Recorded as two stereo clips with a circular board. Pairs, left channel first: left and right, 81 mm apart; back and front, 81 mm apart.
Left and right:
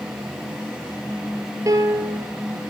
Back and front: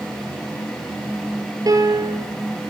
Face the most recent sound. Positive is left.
turn(degrees=-40)